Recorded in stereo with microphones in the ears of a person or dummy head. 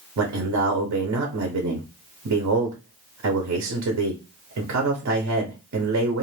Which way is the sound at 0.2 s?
65° right (ahead or behind).